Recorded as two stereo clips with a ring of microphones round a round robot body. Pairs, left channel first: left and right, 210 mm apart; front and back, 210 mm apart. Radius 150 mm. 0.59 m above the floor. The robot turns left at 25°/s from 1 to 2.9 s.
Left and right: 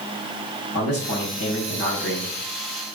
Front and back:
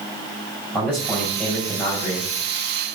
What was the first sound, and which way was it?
A man speaking, 100° left.